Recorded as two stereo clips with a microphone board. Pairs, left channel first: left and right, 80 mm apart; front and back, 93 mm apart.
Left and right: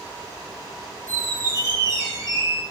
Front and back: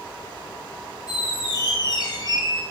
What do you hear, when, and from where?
1.1 s a squeak: 40° right, 0.9 m